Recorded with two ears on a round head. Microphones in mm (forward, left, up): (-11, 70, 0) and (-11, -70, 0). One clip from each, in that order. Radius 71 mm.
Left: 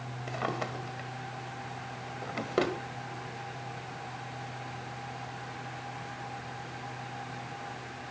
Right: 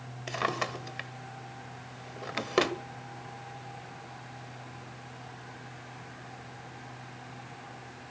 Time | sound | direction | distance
0.3 | a drawer | 60° right (ahead or behind) | 1.4 m